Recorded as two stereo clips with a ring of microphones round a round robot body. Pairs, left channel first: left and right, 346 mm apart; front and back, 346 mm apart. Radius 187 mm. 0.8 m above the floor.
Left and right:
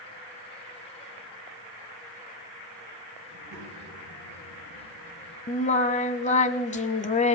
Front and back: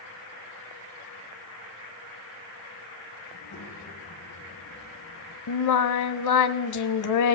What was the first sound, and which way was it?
A child speaking, 55° right.